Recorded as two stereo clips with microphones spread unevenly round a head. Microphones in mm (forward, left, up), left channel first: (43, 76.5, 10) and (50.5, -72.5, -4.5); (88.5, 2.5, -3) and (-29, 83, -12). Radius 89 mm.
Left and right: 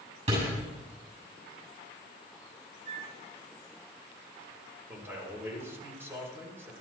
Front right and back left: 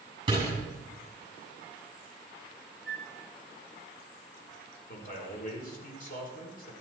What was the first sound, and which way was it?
A door slam, 145° right.